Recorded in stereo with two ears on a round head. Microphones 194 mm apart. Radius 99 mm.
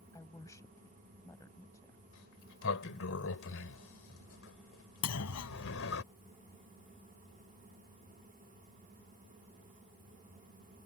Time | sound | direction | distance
0.1 | a woman speaking | 15° left (ahead or behind) | ?
2.1 | a sliding door | 65° left (ahead or behind) | ?
5.0 | a clunk | 85° left | ?